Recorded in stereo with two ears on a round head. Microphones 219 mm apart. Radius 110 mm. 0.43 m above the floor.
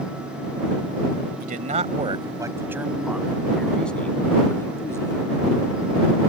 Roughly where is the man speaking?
Right.